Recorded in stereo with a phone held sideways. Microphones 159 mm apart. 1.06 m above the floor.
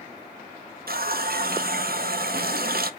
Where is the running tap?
70° right (ahead or behind), 0.6 m.